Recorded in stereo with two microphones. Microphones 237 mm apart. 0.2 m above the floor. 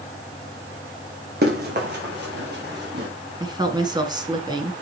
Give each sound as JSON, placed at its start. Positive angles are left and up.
{"t": 1.4, "sound": "running footsteps", "side_deg": -45, "distance_m": 3.5}
{"t": 3.4, "sound": "a woman speaking", "side_deg": -20, "distance_m": 1.8}